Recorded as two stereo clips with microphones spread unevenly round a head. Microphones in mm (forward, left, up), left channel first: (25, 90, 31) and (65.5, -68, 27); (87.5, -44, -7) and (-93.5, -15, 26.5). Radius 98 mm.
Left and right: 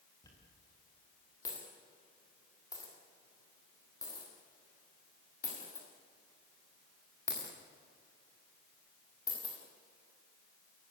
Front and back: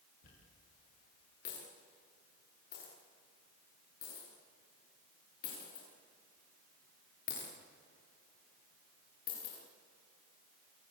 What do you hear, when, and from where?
0.2 s a dropped coin: 35° left, 9.5 m